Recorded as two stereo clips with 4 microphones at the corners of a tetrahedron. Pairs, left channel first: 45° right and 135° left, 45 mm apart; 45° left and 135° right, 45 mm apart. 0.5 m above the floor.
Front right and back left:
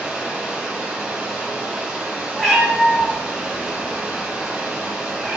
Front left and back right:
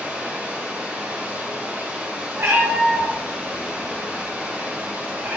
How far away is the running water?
About 1.0 m.